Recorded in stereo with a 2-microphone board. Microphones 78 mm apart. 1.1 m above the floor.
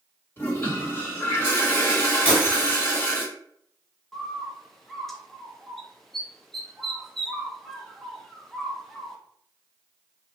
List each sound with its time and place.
0.4 s a toilet flushing: 35° left (ahead or behind), 1.2 m
2.2 s breaking glass: 20° right (ahead or behind), 1.1 m
4.1 s a bird: 5° left (ahead or behind), 0.5 m